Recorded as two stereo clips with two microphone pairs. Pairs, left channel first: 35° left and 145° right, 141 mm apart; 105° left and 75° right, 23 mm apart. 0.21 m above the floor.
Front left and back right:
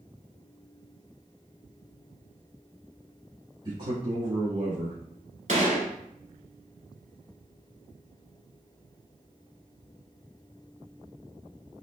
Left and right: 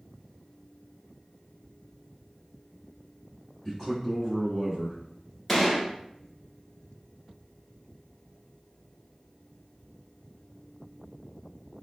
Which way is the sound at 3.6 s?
135° right.